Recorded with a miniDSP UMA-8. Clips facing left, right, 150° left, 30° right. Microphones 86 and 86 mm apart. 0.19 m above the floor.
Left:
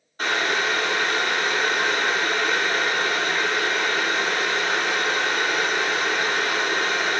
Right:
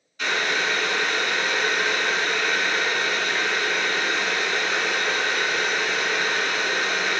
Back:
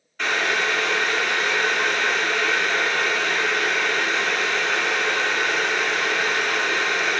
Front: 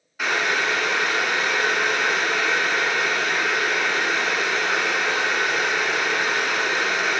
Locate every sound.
0.2 s boiling: 50° left, 0.7 m